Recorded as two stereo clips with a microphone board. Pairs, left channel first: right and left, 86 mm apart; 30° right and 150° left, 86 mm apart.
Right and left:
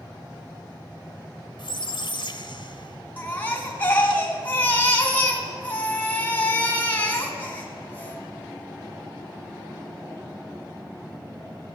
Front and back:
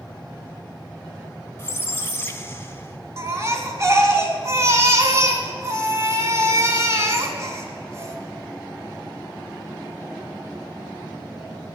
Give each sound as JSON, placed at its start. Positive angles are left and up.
{"t": 1.6, "sound": "a squeak", "azimuth_deg": -90, "distance_m": 0.9}
{"t": 3.2, "sound": "a baby crying", "azimuth_deg": -155, "distance_m": 1.9}